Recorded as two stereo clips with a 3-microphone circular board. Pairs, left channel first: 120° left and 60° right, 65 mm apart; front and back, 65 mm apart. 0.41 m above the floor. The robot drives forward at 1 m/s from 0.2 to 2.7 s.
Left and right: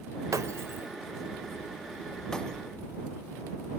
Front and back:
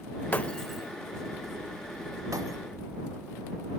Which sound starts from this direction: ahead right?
Breaking glass, at 0.3 s.